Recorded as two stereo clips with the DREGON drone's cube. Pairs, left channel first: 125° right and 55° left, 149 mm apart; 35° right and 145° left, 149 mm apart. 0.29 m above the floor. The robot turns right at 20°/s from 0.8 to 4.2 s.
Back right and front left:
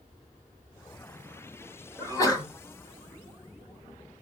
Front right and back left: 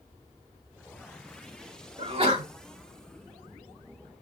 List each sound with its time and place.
2.0 s a sneeze: 175° left, 1.3 m; by 2.5 s 175° right, 1.3 m